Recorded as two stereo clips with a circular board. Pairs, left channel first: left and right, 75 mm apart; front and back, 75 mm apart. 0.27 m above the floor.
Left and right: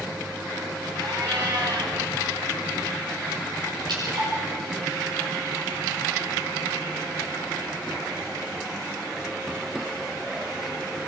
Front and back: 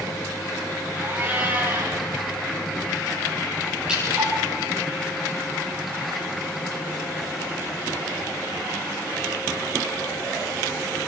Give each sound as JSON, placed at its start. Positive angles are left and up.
{"t": 1.0, "sound": "a cat meowing", "azimuth_deg": -115, "distance_m": 4.0}
{"t": 3.9, "sound": "dripping", "azimuth_deg": -105, "distance_m": 8.0}